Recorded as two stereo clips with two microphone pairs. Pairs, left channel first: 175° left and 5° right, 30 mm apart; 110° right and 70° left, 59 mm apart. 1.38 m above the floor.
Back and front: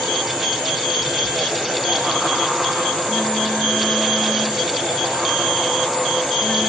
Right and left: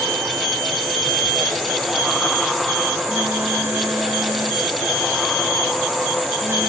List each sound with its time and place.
1.0 s a phone buzzing: 105° left